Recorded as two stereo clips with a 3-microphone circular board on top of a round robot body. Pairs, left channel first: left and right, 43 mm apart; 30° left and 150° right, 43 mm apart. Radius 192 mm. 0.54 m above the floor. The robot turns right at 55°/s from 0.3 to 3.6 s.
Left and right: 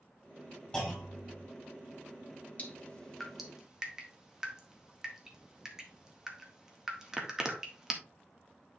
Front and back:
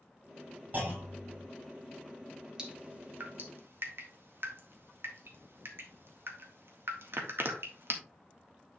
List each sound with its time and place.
0.7 s a clunk: 160° left, 5.5 m; by 1.4 s 160° right, 5.5 m
2.6 s dripping: 140° left, 1.9 m; by 7.9 s 165° right, 1.9 m